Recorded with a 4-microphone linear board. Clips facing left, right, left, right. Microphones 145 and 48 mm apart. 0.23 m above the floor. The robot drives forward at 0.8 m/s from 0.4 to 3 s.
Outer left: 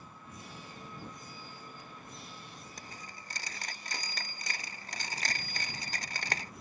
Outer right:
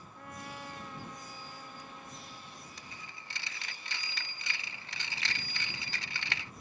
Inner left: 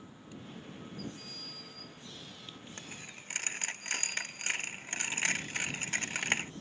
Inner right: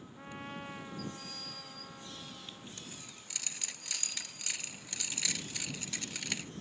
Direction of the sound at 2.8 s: 45° left (ahead or behind).